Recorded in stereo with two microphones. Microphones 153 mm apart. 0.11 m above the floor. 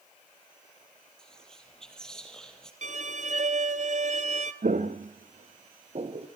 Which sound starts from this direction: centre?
Whispering, at 1.2 s.